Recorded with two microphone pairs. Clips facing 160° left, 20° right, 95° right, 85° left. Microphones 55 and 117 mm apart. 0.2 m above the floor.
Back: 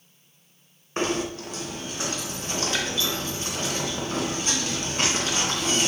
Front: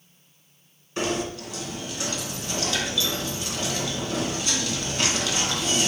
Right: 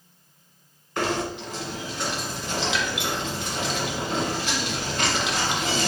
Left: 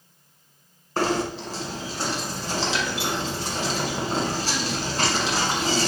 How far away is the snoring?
I don't hear snoring.